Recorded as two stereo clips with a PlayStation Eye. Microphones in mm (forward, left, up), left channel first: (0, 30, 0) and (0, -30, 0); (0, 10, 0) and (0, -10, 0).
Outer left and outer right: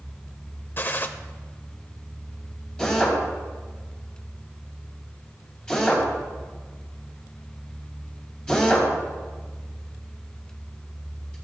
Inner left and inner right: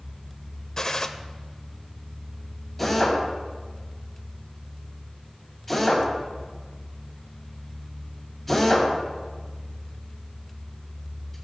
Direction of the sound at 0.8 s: 35° left (ahead or behind).